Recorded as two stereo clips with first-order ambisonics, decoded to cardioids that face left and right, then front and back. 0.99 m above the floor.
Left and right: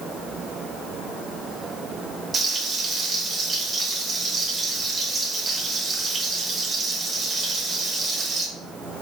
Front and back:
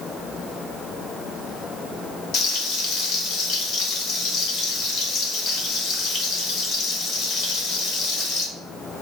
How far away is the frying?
About 0.8 m.